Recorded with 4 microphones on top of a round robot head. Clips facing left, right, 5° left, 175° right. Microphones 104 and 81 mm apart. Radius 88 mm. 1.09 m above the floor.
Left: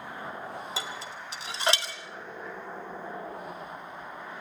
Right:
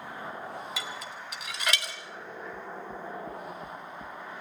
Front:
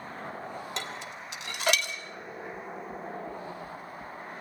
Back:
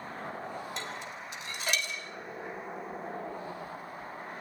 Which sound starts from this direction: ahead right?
Knocking, at 2.5 s.